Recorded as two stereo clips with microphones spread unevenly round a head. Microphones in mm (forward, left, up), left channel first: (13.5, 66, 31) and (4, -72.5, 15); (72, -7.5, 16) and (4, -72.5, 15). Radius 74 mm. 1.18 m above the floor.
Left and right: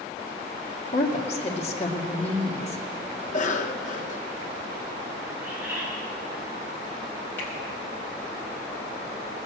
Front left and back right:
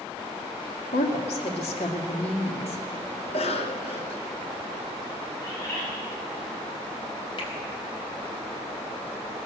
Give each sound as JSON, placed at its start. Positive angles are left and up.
{"t": 0.9, "sound": "a woman speaking", "azimuth_deg": 40, "distance_m": 2.0}
{"t": 3.2, "sound": "a cough", "azimuth_deg": 50, "distance_m": 1.4}
{"t": 5.4, "sound": "a bird", "azimuth_deg": -15, "distance_m": 5.5}
{"t": 7.4, "sound": "a finger snap", "azimuth_deg": 15, "distance_m": 4.5}